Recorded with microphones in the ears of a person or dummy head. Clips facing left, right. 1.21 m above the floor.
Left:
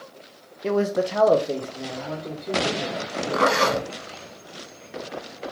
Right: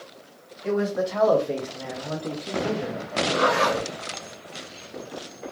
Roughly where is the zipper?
Left.